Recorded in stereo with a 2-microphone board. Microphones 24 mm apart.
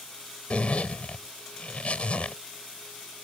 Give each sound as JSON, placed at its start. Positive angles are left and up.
{"t": 0.5, "sound": "a zipper", "side_deg": 50}